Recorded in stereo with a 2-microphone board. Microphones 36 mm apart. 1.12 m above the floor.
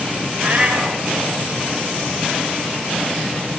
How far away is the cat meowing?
About 1.6 m.